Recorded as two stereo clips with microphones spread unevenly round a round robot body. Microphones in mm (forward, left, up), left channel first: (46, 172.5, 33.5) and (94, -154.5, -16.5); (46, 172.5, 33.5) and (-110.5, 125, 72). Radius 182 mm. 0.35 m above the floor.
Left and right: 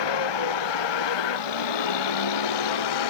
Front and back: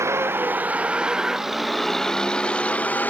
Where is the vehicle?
125° left; by 3.1 s 95° left.